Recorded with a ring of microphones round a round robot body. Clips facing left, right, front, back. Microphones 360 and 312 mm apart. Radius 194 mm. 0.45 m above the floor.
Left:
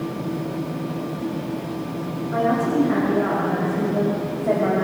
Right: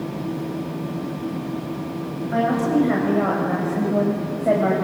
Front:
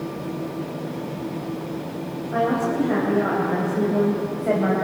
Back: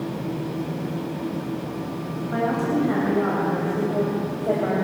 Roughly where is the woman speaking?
Behind right.